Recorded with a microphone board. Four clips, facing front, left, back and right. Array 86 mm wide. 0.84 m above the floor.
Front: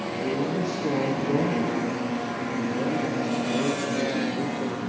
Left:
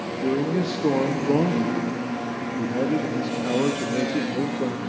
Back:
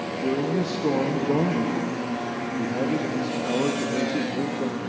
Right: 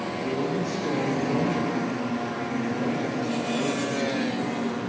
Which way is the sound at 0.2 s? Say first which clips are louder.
Left 5 dB, back 2 dB; 115° left.